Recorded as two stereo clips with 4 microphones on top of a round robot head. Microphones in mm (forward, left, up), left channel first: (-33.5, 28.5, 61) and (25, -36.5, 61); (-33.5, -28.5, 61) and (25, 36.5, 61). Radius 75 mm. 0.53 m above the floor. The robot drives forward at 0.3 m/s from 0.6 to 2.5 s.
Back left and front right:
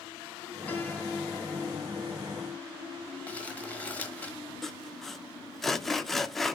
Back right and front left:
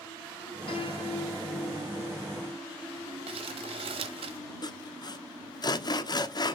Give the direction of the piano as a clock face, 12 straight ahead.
5 o'clock.